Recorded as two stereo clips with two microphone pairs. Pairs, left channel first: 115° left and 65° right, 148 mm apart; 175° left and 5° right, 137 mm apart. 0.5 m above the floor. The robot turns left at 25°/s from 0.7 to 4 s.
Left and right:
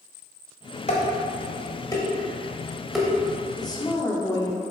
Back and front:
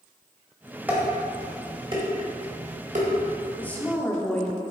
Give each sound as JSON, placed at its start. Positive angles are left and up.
{"t": 0.9, "sound": "dishes clattering", "azimuth_deg": 75, "distance_m": 1.8}
{"t": 3.6, "sound": "a woman speaking", "azimuth_deg": 115, "distance_m": 1.1}